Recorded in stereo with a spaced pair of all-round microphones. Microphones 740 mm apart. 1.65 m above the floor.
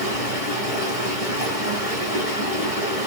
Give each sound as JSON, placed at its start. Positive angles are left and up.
{"t": 0.0, "sound": "running water", "side_deg": -50, "distance_m": 2.5}